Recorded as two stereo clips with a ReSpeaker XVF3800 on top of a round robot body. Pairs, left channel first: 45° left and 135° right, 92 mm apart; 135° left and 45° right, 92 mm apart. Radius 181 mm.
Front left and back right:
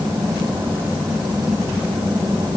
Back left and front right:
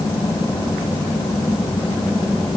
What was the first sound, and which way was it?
Only background noise.